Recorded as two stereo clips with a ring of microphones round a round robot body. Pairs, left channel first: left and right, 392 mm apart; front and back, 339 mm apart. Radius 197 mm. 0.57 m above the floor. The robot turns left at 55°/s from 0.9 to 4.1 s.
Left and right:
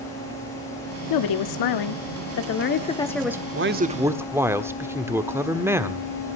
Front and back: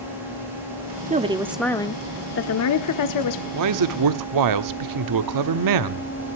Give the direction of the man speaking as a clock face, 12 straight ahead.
5 o'clock.